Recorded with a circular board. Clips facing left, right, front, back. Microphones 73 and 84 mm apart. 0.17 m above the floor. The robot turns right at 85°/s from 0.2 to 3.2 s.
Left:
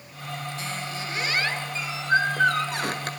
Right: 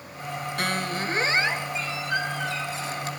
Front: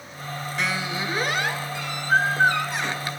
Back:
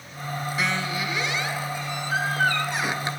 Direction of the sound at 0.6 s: 95° right.